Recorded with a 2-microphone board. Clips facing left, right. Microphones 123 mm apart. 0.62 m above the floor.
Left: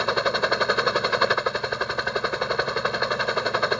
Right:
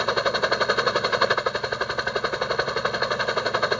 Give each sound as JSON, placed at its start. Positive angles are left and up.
{"t": 0.0, "sound": "a helicopter", "side_deg": 0}